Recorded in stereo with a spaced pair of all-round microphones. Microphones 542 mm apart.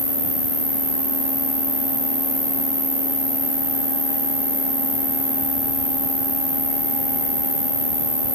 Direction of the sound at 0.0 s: 85° left.